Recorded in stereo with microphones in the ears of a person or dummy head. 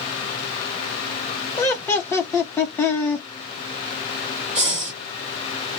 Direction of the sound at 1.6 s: 15° left (ahead or behind).